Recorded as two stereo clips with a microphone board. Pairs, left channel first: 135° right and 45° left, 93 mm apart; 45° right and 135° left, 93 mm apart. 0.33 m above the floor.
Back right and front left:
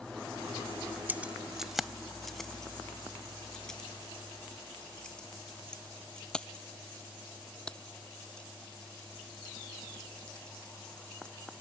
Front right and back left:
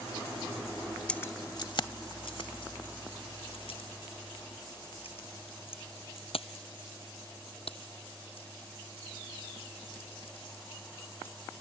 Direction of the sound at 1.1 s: 15° left.